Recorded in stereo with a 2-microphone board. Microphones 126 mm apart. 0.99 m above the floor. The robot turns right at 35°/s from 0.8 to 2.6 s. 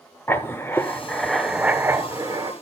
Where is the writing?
160° left, 1.1 m; by 2.5 s 140° right, 1.1 m.